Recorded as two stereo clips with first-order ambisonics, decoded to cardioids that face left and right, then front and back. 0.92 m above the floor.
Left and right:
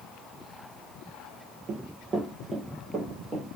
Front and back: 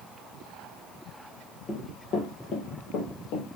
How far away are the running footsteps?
About 1.1 m.